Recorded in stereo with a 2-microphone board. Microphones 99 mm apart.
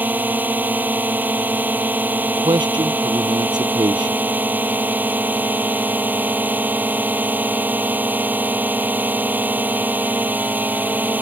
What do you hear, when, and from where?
0.0 s a drone: 15° right (ahead or behind)
2.3 s a man speaking: 50° right (ahead or behind)